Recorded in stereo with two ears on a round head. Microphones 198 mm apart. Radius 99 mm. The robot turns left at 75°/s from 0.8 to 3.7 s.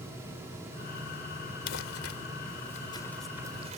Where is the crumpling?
60° left (ahead or behind); by 3.8 s 35° right (ahead or behind).